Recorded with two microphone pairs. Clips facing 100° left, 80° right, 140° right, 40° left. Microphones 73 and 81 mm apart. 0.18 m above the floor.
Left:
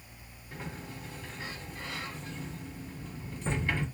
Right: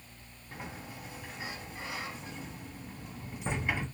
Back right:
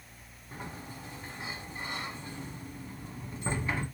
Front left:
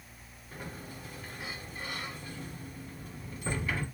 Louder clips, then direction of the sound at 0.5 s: Left 1 dB, back right 1 dB; 130° right.